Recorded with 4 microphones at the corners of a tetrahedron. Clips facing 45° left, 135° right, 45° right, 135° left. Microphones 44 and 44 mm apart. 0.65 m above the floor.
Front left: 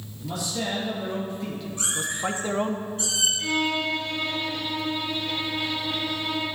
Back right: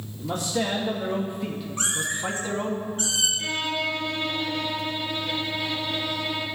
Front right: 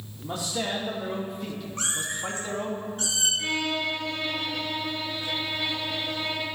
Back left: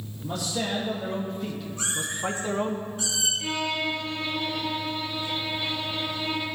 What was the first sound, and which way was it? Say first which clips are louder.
A man speaking: back right 3 dB, back left 1 dB; 105° right.